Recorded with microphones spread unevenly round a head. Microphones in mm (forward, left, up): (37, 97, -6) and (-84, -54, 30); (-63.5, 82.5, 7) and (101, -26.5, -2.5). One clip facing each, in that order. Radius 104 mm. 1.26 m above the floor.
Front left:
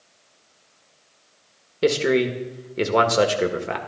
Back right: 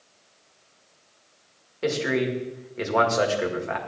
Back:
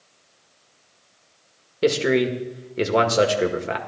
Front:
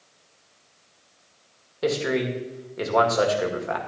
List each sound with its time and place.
1.8 s a man speaking: 90° left, 1.8 m